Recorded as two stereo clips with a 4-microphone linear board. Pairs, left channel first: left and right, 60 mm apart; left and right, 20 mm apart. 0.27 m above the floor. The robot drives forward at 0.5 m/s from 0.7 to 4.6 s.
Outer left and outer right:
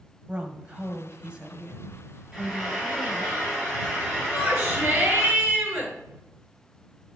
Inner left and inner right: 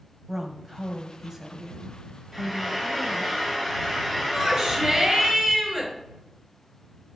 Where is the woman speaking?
20° right (ahead or behind), 1.4 m; by 3.3 s 10° right (ahead or behind), 2.5 m.